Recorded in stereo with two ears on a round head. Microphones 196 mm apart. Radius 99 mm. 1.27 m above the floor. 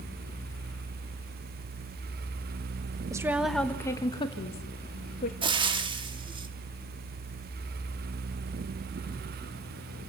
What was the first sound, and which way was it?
A woman speaking, 15° right (ahead or behind).